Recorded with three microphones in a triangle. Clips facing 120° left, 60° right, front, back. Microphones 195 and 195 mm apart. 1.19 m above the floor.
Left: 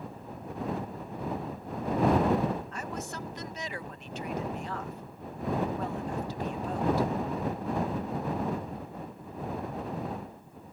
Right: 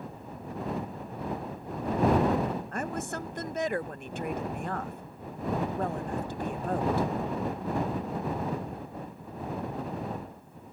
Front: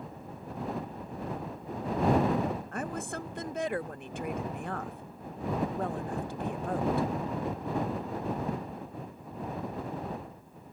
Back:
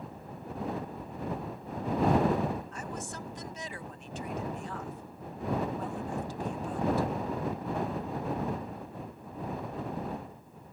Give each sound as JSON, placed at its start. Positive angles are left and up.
{"t": 2.7, "sound": "a woman speaking", "azimuth_deg": -25}